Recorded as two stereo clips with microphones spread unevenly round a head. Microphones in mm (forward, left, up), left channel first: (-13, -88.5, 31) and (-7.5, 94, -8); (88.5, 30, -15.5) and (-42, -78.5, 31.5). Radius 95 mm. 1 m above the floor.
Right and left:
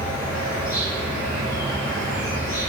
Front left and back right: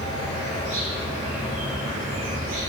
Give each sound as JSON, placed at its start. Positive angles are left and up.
{"t": 0.0, "sound": "an insect", "azimuth_deg": -170, "distance_m": 1.7}